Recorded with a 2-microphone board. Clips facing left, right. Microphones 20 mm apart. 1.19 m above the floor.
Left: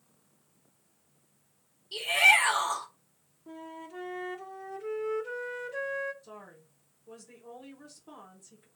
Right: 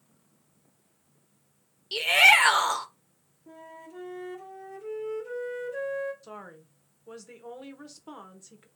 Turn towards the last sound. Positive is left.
turn(degrees=-60)  # may be behind; listen again after turning